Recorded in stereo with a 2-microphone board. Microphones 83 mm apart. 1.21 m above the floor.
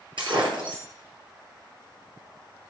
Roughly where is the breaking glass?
Right.